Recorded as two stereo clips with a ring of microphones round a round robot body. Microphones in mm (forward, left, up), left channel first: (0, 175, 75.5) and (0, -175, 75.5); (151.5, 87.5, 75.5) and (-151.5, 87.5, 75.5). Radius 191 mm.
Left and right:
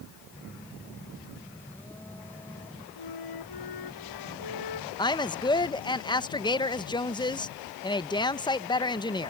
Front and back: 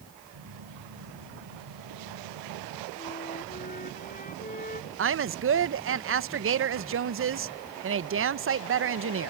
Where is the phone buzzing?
175° left.